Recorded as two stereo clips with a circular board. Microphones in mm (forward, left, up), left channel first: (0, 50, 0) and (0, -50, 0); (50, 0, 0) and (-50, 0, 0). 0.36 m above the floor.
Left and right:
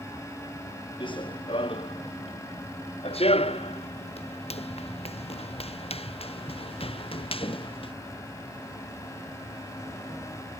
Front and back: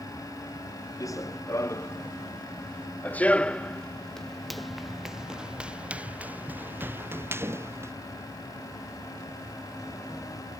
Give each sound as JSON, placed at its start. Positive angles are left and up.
{"t": 1.0, "sound": "running footsteps", "azimuth_deg": 55}